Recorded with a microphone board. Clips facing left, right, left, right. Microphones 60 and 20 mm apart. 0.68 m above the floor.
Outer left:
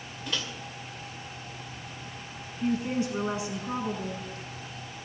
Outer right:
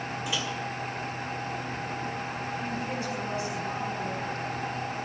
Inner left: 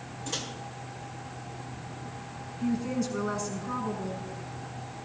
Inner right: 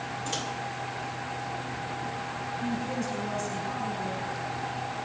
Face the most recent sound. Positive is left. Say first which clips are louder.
# outer left 9 dB, inner left 4 dB
turn(degrees=15)  # may be behind; listen again after turning